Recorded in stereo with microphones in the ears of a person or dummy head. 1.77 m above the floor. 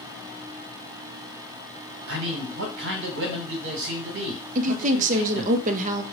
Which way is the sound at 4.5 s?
40° right (ahead or behind).